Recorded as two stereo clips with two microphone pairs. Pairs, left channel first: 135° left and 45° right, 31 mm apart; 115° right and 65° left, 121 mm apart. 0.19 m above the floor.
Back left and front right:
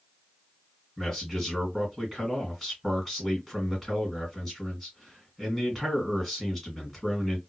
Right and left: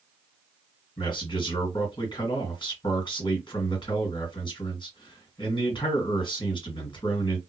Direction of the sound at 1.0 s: 145° right.